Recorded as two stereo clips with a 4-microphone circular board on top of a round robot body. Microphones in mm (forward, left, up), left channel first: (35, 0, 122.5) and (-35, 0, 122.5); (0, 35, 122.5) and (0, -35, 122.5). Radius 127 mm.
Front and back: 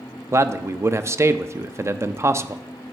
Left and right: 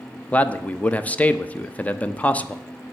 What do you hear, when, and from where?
0.3 s a man speaking: 150° left, 0.5 m